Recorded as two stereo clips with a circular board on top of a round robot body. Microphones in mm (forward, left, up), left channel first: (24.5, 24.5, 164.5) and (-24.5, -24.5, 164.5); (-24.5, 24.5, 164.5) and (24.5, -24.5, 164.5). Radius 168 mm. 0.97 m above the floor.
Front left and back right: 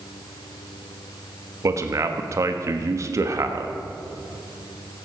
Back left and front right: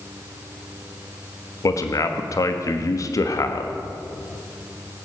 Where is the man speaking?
175° left, 1.4 m.